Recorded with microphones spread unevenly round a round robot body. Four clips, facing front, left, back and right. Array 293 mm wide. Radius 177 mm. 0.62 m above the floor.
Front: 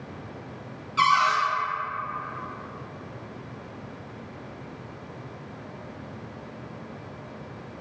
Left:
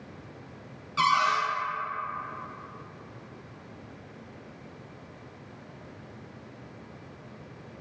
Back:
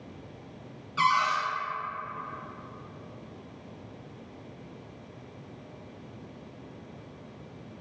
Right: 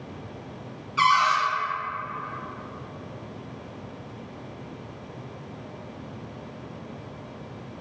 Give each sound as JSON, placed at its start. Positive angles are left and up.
{"t": 1.0, "sound": "a cupboard door", "azimuth_deg": 110, "distance_m": 0.5}